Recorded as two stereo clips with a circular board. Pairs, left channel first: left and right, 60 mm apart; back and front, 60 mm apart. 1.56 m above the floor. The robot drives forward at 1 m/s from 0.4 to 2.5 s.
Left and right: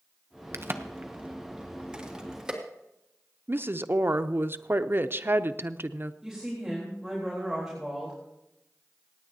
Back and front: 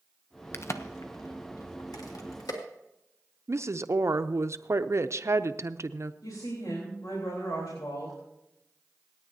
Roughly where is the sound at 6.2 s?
Behind.